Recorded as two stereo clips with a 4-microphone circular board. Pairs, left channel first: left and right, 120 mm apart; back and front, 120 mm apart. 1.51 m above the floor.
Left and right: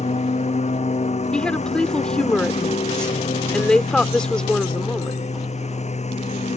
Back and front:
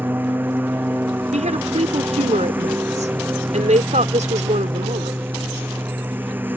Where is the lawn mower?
75° left.